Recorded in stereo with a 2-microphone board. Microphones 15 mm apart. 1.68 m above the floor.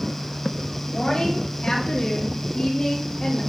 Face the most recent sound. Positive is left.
turn(degrees=65)  # may be behind; listen again after turning